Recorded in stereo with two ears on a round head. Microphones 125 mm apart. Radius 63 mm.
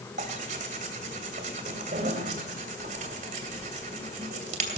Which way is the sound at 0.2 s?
60° right (ahead or behind).